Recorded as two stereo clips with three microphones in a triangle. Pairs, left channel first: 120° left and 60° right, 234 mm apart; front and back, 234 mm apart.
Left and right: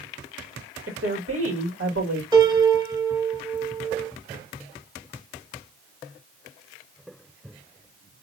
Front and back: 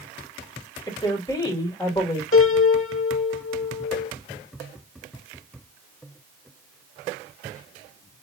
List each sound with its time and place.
0.9 s a woman speaking: 70° right, 2.5 m
2.3 s a piano: 10° left, 1.3 m